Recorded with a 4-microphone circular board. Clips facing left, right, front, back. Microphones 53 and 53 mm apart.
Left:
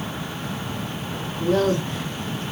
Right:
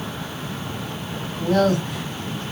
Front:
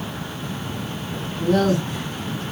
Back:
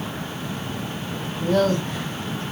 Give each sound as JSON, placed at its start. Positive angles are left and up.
{"t": 1.4, "sound": "a man speaking", "azimuth_deg": -85, "distance_m": 3.0}